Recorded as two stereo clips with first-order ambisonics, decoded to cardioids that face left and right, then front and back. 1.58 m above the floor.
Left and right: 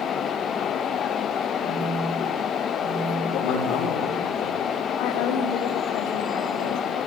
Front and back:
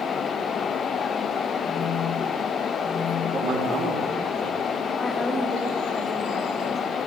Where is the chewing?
I don't hear chewing.